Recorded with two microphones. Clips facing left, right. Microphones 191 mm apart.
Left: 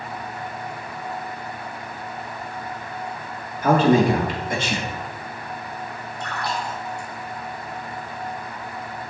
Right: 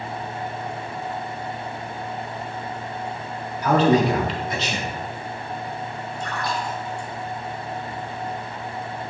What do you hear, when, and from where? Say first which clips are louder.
3.6 s a man speaking: left 1 dB; 50° left (ahead or behind), 2 m
6.2 s a splash: even; 65° left (ahead or behind), 2.5 m